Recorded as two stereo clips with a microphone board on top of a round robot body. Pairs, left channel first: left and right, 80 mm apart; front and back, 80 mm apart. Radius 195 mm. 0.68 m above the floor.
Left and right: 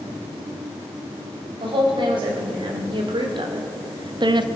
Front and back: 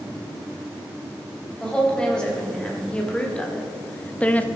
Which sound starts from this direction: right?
A woman speaking, at 1.6 s.